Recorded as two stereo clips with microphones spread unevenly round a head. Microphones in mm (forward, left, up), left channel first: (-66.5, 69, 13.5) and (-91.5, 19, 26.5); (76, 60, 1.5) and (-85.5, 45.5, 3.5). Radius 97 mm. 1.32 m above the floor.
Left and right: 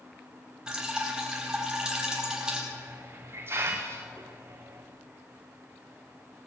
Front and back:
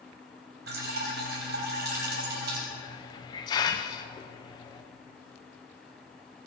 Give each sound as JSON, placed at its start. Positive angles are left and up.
{"t": 0.7, "sound": "dripping", "azimuth_deg": 170, "distance_m": 4.5}
{"t": 2.7, "sound": "a hiss", "azimuth_deg": -60, "distance_m": 0.5}